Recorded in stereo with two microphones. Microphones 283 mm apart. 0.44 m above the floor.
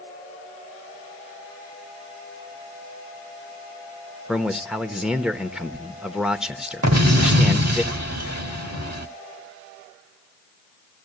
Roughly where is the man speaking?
Centre.